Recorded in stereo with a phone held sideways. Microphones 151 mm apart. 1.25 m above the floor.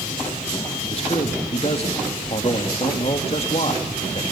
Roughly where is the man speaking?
Left.